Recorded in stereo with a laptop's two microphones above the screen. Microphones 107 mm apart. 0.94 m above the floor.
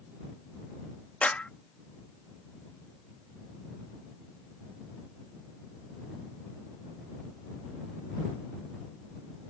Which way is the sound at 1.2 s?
15° left (ahead or behind).